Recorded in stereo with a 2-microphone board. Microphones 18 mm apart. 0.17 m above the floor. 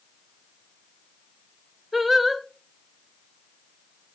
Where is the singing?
5° right (ahead or behind), 1.0 m.